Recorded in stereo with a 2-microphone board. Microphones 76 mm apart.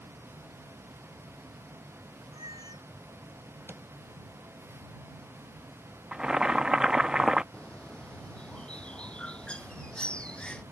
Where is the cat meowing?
70° right (ahead or behind).